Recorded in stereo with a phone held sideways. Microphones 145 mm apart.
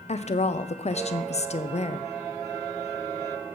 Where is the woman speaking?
50° left (ahead or behind), 0.5 m.